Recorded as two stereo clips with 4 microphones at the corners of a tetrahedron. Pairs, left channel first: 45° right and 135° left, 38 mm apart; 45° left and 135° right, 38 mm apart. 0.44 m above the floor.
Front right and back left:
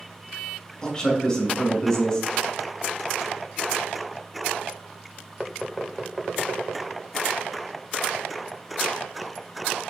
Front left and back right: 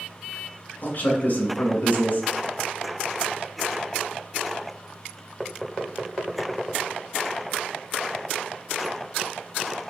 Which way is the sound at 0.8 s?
25° left.